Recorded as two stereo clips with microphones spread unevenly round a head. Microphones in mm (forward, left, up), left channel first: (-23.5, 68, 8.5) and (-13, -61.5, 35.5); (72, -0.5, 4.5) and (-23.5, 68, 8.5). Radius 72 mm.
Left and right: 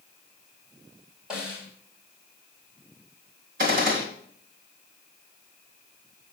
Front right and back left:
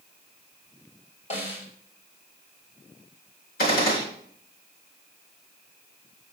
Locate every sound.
1.3 s a snare drum: straight ahead, 4 m
3.6 s a gunshot: 50° right, 3 m